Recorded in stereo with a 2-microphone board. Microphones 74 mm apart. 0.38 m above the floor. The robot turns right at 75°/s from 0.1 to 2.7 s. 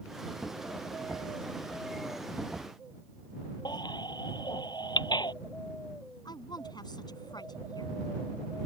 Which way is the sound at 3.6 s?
80° left.